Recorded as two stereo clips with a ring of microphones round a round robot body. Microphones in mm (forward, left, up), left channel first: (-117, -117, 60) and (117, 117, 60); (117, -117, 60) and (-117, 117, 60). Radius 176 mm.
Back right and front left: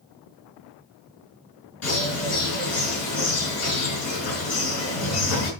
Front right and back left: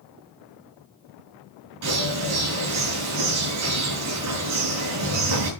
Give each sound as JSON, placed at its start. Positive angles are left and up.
{"t": 1.8, "sound": "a bird", "azimuth_deg": 180, "distance_m": 5.5}